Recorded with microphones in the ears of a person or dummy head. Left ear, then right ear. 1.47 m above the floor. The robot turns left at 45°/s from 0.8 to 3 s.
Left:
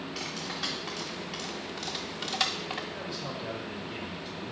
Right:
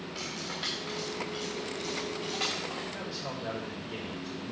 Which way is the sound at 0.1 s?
Centre (ahead or behind).